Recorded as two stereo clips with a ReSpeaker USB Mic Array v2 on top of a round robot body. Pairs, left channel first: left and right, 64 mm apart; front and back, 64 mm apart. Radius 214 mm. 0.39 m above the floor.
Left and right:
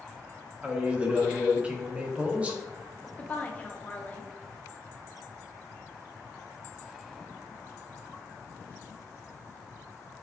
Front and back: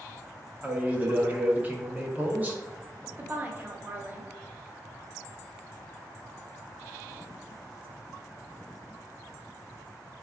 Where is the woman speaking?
140° left, 1.0 m.